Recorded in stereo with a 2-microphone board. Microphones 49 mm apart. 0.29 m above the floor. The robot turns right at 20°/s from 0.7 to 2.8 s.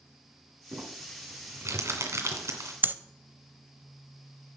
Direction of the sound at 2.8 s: 45° right (ahead or behind).